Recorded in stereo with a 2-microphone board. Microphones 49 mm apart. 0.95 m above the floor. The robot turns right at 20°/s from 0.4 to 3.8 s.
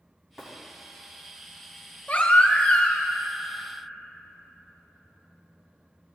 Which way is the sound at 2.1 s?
30° left (ahead or behind).